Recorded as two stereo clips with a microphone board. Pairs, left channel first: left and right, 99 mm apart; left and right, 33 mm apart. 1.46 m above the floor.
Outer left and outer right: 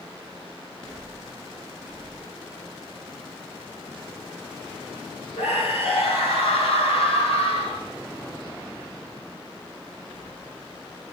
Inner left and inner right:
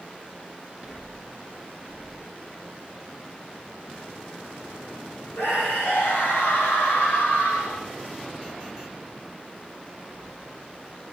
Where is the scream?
75° left (ahead or behind), 9.5 m; by 7.8 s 85° left, 9 m.